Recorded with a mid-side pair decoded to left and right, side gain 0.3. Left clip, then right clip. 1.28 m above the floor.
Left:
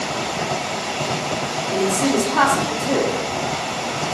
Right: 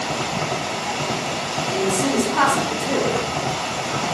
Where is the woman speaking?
40° left, 1.3 m.